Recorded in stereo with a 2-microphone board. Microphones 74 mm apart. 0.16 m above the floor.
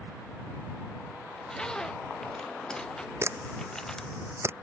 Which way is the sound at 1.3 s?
10° left (ahead or behind).